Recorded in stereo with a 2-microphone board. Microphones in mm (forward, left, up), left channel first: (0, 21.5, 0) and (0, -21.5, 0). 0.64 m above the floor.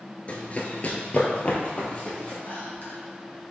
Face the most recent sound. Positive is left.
turn(degrees=50)  # may be behind; listen again after turning